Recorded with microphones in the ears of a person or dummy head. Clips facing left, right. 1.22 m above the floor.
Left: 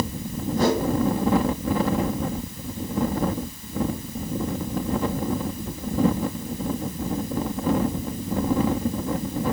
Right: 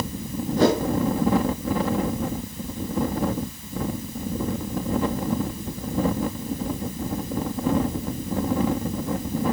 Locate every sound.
0.6 s a whoosh: 65° right (ahead or behind), 4.5 m